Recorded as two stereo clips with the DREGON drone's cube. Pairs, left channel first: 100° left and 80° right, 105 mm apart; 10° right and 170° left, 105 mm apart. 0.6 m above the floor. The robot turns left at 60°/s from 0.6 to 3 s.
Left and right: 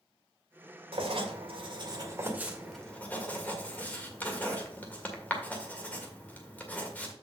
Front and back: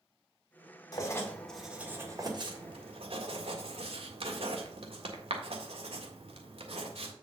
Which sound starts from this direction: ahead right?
Writing, at 0.9 s.